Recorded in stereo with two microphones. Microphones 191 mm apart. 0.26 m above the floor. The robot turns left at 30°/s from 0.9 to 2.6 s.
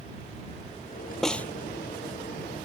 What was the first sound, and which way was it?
A snare drum, centre (ahead or behind).